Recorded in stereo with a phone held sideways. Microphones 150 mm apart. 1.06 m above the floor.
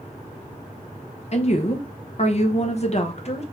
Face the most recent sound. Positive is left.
turn(degrees=45)  # may be behind; listen again after turning